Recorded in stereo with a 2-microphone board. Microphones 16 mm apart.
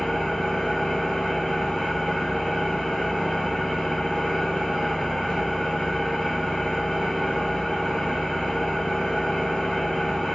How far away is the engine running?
About 1.3 m.